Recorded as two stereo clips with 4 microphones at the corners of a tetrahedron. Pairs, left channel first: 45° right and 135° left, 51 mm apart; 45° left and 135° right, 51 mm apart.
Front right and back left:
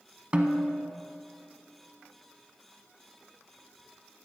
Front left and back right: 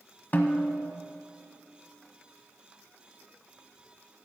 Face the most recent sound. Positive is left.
turn(degrees=75)